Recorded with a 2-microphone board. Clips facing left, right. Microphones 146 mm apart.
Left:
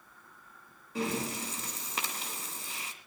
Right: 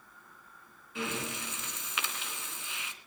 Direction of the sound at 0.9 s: 40° left (ahead or behind).